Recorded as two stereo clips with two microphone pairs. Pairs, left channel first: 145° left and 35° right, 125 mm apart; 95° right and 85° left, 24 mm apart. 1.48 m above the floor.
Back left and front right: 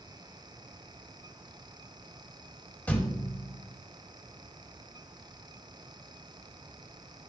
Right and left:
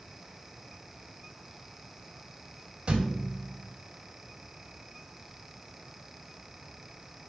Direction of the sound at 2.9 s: 75° left.